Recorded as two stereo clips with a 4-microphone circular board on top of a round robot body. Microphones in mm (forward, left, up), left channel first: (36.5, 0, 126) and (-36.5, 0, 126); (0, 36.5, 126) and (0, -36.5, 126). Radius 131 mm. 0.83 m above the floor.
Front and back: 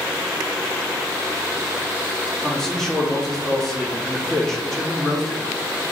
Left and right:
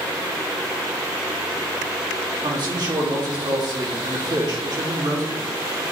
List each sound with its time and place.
2.4 s a man speaking: 85° right, 2.5 m